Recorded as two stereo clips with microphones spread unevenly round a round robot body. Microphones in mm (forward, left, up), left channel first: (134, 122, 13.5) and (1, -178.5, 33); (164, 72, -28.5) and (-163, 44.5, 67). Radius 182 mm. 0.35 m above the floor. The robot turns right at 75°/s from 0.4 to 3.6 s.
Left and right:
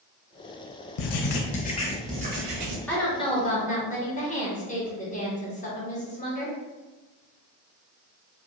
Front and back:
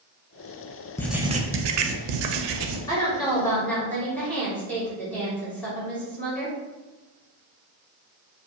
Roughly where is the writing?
Left.